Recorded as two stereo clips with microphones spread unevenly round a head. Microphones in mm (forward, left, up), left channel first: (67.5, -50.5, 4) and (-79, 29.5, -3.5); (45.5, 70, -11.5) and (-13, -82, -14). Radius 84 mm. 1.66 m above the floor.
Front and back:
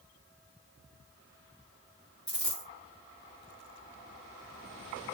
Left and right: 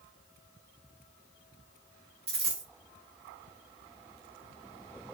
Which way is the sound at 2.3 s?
105° right.